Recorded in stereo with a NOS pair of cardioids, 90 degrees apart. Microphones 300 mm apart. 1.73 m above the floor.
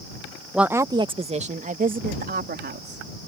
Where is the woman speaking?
Straight ahead; by 3.0 s 35° right.